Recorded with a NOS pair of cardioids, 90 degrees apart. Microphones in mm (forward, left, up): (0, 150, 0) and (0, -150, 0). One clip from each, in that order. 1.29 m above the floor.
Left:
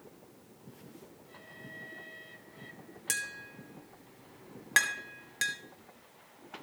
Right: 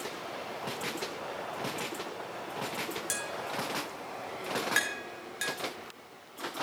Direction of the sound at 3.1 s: 20° left.